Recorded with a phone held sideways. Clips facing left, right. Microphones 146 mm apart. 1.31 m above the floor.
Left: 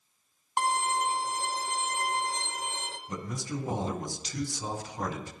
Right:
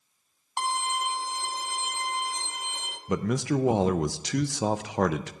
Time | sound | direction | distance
0.6 | a violin | 50° left (ahead or behind) | 1.4 m
3.1 | a man speaking | 75° right (ahead or behind) | 0.5 m